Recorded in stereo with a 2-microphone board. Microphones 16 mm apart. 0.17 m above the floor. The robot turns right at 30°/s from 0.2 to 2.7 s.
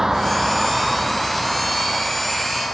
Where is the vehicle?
40° right (ahead or behind); by 2.7 s 60° left (ahead or behind).